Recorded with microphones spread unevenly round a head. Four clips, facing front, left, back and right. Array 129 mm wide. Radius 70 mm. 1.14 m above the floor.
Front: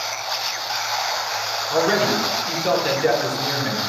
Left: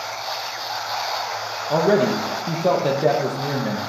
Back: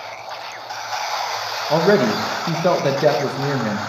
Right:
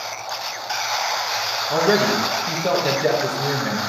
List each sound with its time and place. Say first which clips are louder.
1.7 s a man speaking: left 1 dB, back 4 dB; 160° left, 1.1 m